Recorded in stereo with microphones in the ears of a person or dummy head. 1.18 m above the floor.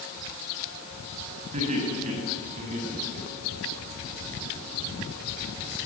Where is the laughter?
40° right (ahead or behind), 7 m; by 3.7 s 45° right (ahead or behind), 9.5 m.